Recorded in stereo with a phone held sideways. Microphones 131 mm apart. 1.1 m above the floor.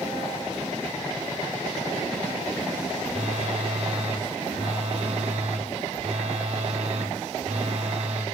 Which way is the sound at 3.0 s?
60° right (ahead or behind).